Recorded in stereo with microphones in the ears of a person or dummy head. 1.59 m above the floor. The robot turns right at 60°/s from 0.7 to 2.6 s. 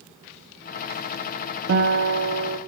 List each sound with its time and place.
1.7 s a guitar: 120° right, 1.5 m; by 2.6 s 65° right, 1.5 m